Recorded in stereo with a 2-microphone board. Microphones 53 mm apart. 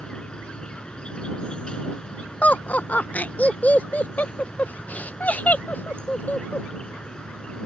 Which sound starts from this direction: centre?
An insect, at 0.0 s.